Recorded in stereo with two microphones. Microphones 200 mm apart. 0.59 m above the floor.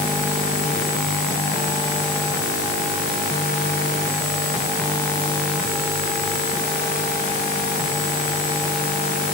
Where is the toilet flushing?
No toilet flushing in this recording.